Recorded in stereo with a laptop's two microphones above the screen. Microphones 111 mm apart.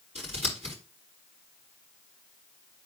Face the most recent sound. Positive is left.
turn(degrees=-85)